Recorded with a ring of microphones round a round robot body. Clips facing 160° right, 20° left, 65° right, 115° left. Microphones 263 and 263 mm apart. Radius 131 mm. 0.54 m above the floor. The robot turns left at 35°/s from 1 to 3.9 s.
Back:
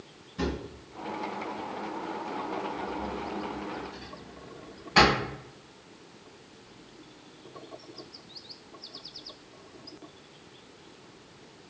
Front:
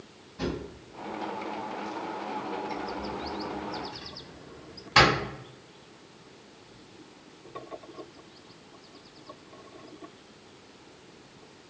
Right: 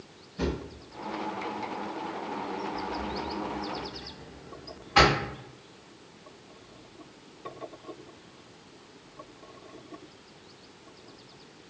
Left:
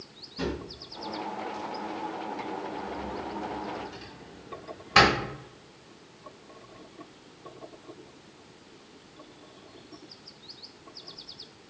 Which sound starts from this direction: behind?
A drawer, at 0.4 s.